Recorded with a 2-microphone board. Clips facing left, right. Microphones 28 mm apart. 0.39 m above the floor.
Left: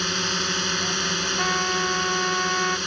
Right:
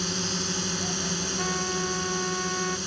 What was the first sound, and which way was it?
A drone, 35° left (ahead or behind).